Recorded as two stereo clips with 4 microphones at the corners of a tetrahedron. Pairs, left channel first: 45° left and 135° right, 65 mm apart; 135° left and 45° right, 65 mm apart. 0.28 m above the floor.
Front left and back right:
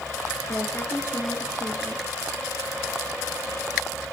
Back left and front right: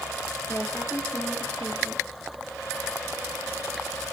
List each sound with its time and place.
0.5 s a woman speaking: 95° left, 4.5 m